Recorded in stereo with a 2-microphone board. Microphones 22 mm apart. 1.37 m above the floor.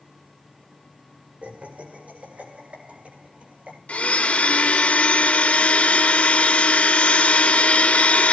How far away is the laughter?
About 5.5 m.